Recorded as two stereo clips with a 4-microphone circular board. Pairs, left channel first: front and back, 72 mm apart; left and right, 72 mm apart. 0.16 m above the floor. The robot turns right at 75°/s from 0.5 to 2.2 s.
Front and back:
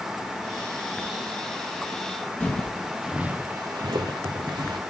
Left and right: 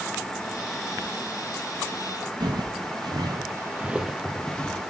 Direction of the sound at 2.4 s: 75° right.